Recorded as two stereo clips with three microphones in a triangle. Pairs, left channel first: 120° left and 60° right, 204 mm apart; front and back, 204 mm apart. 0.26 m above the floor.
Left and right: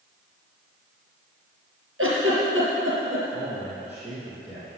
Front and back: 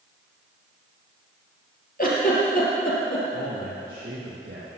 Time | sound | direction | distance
2.0 | a giggle | 45° right | 4.5 m
3.3 | a man speaking | 140° right | 7 m